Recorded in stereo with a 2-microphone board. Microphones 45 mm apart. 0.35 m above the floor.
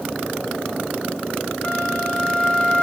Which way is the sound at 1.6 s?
30° left (ahead or behind).